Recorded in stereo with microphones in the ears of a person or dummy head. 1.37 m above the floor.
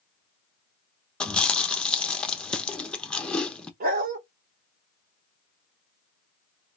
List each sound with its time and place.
1.2 s chewing: 5° left (ahead or behind), 0.8 m
3.8 s a dog barking: 50° right (ahead or behind), 1.5 m